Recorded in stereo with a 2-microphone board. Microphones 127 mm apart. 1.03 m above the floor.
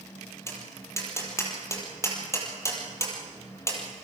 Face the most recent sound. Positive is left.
turn(degrees=20)  # may be behind; listen again after turning